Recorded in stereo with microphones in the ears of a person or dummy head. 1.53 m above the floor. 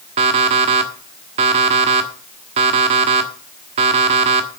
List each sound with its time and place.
0.2 s an alarm clock: 30° right (ahead or behind), 1.3 m